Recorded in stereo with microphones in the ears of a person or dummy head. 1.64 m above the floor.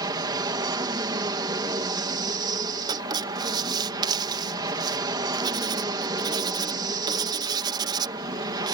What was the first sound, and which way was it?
An aircraft, 15° right (ahead or behind).